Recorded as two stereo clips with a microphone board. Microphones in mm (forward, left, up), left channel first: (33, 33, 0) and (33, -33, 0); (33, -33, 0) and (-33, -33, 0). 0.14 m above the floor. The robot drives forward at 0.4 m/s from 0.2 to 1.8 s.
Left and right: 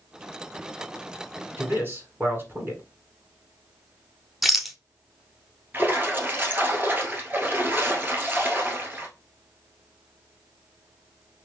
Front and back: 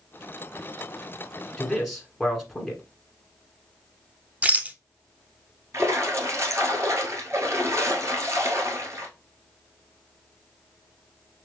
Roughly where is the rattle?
Behind.